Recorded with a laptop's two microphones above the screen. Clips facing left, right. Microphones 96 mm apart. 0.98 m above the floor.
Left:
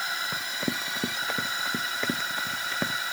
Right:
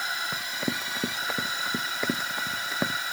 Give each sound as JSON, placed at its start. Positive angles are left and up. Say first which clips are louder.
{"t": 0.3, "sound": "running footsteps", "louder": "even", "side_deg": 0}